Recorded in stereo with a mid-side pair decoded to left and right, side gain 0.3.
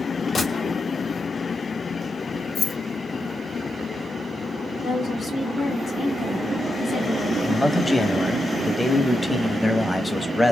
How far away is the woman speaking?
About 2 m.